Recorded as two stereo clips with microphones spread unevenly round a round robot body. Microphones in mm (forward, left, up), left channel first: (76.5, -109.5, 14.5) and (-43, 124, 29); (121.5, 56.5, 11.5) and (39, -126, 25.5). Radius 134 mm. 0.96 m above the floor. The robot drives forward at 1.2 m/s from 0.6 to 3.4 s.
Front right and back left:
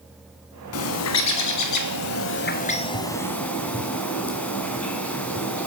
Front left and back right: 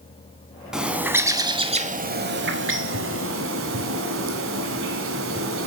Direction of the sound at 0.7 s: 30° right.